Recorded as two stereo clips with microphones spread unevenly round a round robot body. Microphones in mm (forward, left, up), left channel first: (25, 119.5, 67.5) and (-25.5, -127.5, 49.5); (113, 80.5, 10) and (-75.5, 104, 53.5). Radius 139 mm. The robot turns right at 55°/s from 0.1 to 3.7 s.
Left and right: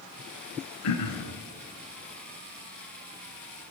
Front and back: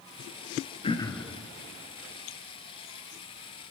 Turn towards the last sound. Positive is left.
turn(degrees=-150)